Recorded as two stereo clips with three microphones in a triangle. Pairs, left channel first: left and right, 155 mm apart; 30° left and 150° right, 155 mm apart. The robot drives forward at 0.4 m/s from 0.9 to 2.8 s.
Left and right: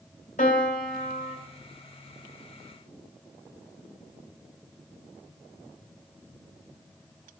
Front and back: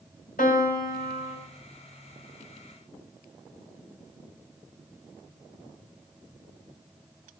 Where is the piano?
55° left, 3 m; by 1.4 s 60° left, 2.5 m.